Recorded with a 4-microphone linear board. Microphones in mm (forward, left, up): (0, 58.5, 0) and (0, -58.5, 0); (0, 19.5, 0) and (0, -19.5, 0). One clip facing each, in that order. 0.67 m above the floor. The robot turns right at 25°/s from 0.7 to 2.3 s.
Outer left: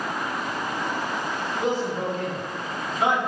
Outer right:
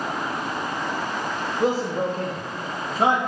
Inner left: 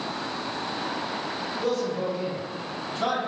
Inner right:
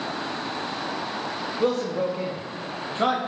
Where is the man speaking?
35° right (ahead or behind), 0.5 m.